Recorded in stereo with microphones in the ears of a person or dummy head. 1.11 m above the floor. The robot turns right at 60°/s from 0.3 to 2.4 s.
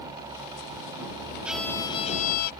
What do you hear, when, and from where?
1.4 s a violin: 5° right; by 2.5 s 55° left